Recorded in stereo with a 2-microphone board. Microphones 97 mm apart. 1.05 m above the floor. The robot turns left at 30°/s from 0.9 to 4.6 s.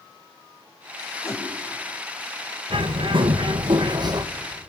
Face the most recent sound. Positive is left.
turn(degrees=-140)